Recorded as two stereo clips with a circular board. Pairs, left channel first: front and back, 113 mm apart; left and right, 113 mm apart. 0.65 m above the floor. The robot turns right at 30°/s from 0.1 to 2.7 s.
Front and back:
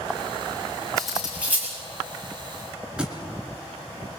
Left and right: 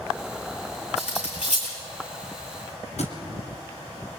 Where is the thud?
100° left, 2.5 m.